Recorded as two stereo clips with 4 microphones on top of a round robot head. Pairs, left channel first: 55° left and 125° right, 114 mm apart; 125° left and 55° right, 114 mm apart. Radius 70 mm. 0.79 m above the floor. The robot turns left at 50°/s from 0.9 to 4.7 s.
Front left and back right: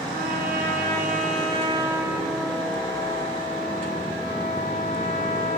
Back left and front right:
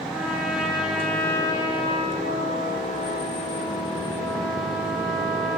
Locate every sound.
0.1 s a trumpet: 140° right, 2.5 m; by 5.6 s 30° left, 2.5 m